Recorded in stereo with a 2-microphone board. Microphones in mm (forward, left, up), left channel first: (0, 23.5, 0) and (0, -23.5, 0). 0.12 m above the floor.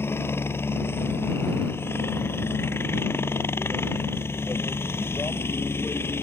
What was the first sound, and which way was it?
A helicopter, 60° left (ahead or behind).